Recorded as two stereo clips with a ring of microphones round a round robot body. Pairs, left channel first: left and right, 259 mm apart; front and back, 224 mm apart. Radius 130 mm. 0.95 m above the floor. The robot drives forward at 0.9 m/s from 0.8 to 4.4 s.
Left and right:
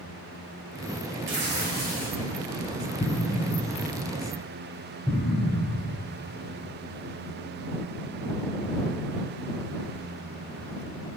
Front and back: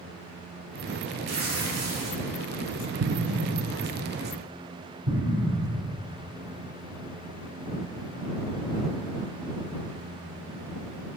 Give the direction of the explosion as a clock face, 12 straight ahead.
7 o'clock.